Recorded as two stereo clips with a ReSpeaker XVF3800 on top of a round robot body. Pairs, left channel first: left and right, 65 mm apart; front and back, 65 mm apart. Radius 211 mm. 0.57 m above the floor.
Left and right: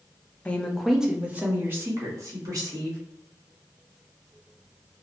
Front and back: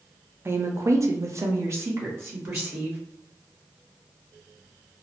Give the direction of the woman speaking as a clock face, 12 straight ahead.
7 o'clock.